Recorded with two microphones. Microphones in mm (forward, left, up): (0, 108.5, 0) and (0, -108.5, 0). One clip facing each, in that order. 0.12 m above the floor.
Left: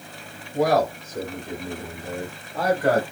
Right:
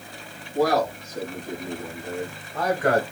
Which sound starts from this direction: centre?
A man speaking, at 0.5 s.